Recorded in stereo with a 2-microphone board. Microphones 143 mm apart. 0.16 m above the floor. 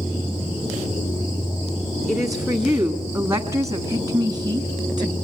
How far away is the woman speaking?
About 1.6 m.